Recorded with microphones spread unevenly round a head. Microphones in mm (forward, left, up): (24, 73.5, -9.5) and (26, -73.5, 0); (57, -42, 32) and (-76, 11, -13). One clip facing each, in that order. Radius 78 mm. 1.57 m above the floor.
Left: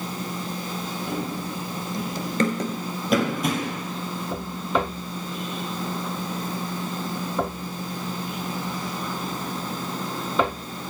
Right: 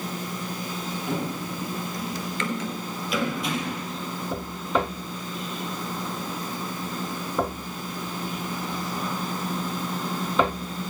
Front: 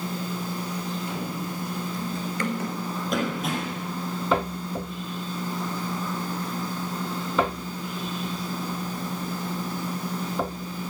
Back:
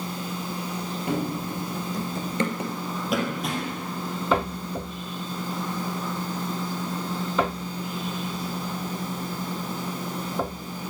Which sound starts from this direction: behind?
Running footsteps, at 1.1 s.